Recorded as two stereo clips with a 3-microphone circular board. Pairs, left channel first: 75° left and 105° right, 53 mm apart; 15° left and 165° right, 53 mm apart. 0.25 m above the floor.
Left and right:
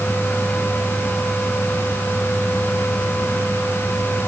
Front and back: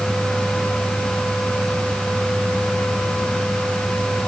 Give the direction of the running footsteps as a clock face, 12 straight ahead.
I don't hear running footsteps.